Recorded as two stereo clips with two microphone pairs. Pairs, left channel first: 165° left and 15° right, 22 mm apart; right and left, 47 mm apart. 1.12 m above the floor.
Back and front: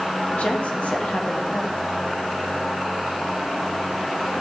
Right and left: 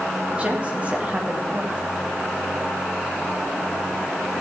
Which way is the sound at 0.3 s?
155° left.